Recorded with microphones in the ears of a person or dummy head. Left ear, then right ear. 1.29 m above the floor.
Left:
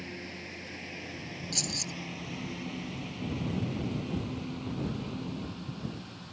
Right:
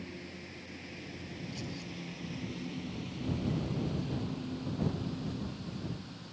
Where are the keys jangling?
85° left.